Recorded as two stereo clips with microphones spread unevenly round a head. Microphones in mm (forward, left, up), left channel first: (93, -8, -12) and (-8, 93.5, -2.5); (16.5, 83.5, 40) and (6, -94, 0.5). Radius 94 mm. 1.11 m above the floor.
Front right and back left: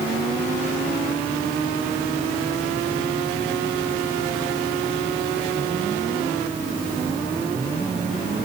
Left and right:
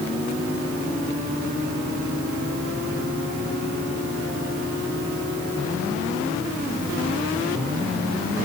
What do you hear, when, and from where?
Only background noise.